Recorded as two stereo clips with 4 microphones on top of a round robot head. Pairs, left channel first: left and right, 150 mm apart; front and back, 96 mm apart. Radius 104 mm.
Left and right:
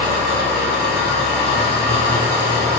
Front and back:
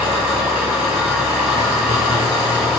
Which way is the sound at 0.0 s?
105° left.